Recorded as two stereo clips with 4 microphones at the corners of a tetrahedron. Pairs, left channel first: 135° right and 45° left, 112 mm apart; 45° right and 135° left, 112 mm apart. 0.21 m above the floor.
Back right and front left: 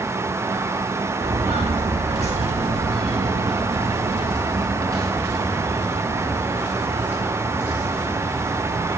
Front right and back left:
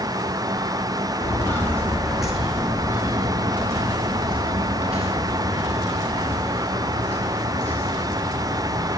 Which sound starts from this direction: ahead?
Footsteps, at 1.2 s.